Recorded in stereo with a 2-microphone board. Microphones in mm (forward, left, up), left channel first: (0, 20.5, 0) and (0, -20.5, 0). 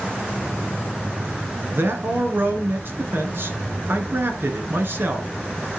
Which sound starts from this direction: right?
A man speaking, at 1.7 s.